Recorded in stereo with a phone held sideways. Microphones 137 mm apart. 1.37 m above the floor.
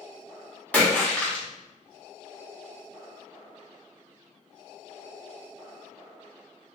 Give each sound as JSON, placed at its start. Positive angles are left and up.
{"t": 0.7, "sound": "a splash", "side_deg": 10, "distance_m": 0.9}